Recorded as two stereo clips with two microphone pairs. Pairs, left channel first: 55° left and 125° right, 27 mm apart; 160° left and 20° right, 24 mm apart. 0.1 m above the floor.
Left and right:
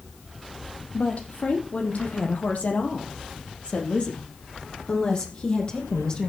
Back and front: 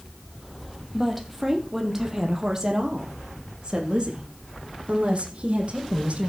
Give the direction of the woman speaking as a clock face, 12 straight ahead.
10 o'clock.